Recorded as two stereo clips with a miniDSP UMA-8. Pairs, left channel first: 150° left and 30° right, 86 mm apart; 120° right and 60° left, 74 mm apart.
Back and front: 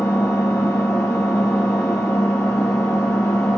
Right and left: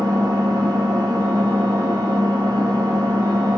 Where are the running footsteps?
No running footsteps in this recording.